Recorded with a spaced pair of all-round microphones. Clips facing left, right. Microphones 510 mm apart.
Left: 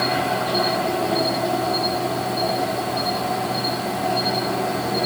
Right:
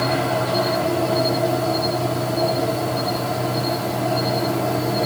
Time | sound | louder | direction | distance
0.0 | an insect | right 2 dB | 65° right (ahead or behind) | 3 m